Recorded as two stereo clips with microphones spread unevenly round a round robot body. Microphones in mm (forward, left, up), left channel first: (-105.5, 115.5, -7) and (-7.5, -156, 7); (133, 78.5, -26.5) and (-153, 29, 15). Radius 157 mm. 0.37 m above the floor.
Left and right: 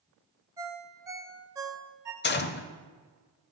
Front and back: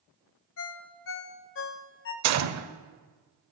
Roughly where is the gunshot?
Behind.